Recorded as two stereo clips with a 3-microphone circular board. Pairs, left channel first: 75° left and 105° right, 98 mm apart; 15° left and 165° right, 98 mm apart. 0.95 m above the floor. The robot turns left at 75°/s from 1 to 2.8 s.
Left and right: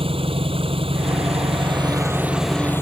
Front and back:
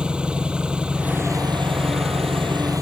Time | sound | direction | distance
0.0 | an engine running | 85° right | ?